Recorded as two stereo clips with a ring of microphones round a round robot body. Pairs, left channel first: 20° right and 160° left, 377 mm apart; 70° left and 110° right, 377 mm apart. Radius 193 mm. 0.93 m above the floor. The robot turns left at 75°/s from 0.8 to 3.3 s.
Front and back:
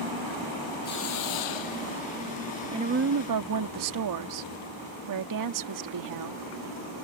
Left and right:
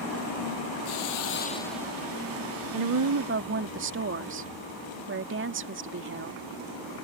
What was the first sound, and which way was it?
A hiss, 45° left.